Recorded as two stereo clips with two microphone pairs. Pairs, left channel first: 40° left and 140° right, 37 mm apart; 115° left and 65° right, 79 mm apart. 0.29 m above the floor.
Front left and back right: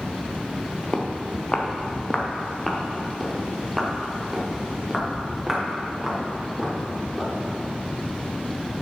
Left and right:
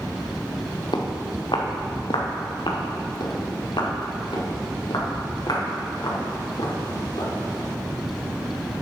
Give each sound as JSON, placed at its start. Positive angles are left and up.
{"t": 0.9, "sound": "footsteps", "azimuth_deg": 100, "distance_m": 1.5}